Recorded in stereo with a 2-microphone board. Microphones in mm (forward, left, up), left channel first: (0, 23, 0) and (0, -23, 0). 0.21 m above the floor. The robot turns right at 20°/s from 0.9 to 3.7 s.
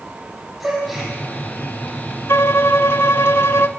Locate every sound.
0.6 s a gasp: 5° right (ahead or behind), 8 m; by 1.1 s 10° right (ahead or behind), 8 m
2.3 s a violin: 70° left (ahead or behind), 0.6 m